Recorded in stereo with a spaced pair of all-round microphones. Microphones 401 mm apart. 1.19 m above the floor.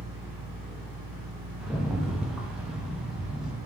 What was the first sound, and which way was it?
A fan, 55° right (ahead or behind).